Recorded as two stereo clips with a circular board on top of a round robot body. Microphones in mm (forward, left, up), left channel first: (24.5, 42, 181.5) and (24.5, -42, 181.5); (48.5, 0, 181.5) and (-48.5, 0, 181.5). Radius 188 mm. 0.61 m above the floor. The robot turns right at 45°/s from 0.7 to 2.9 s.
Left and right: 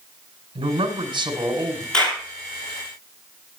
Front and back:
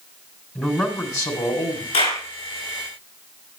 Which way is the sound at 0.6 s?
80° right.